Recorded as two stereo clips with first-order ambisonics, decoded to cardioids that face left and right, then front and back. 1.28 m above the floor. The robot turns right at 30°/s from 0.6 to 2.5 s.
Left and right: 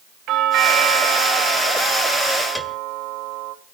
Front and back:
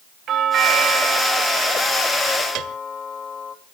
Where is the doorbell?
130° right, 2.5 m; by 3.5 s 70° right, 2.5 m.